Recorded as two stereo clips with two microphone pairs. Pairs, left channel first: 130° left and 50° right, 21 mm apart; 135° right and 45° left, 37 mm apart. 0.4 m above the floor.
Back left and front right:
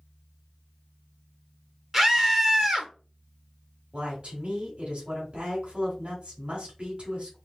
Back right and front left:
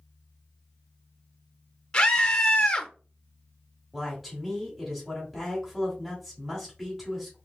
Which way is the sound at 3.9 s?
40° right.